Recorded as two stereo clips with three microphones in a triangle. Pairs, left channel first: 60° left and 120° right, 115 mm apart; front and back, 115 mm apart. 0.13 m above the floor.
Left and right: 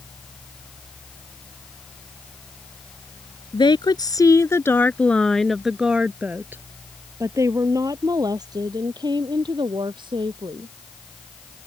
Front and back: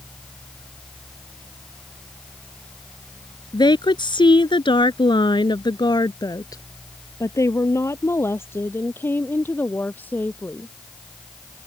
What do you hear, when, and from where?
3.5 s a woman speaking: 35° left; by 10.7 s 75° right